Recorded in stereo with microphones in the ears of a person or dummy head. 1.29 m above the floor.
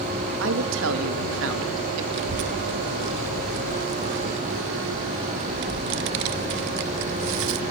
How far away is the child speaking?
About 1.2 m.